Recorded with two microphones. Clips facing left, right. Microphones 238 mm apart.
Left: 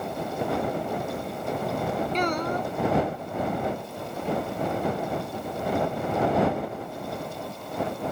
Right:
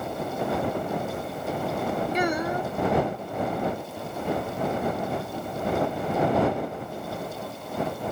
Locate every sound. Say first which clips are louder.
2.1 s a child speaking: right 1 dB; 10° right (ahead or behind)